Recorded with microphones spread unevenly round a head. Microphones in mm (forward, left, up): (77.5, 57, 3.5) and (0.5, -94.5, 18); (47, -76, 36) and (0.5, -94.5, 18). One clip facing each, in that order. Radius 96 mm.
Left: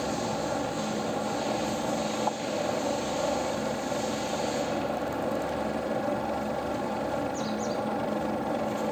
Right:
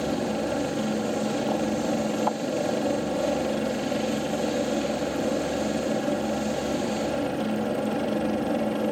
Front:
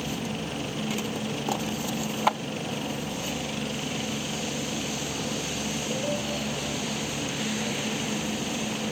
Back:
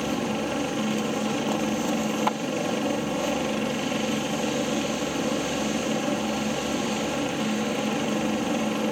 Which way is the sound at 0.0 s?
175° right.